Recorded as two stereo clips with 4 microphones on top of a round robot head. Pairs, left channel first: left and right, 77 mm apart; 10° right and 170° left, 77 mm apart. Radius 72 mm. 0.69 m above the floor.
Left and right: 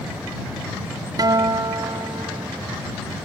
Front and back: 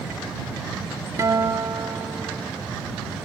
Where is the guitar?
130° right.